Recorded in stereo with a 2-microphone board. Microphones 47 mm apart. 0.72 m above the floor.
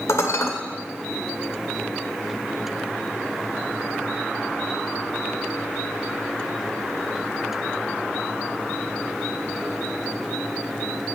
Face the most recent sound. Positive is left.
turn(degrees=85)